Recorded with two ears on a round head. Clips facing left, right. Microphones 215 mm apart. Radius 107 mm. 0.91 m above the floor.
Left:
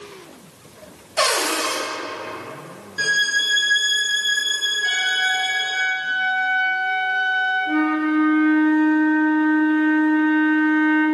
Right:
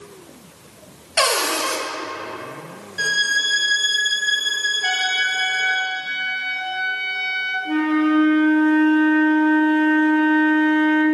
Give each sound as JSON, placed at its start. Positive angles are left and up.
{"t": 1.2, "sound": "a cupboard door", "side_deg": -65, "distance_m": 2.0}
{"t": 3.0, "sound": "a violin", "side_deg": 10, "distance_m": 1.5}
{"t": 4.8, "sound": "a trumpet", "side_deg": -70, "distance_m": 3.5}
{"t": 7.7, "sound": "a flute", "side_deg": -45, "distance_m": 3.0}